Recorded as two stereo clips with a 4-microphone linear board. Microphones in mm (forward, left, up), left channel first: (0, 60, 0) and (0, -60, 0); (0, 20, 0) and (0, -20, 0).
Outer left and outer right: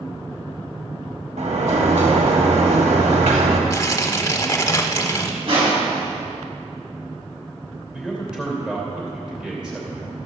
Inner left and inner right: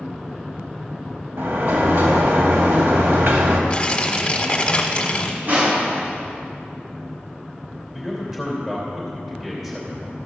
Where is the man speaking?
5° right (ahead or behind), 2.5 m.